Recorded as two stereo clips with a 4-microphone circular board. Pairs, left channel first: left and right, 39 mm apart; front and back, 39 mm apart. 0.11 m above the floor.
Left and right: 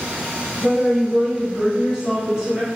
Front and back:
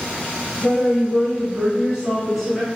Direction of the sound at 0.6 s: 125° left.